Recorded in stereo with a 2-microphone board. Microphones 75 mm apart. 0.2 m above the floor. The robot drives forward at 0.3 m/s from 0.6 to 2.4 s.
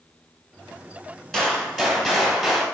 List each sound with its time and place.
1.3 s a gunshot: 5° left (ahead or behind), 1.6 m; by 2.6 s centre (ahead or behind), 1.9 m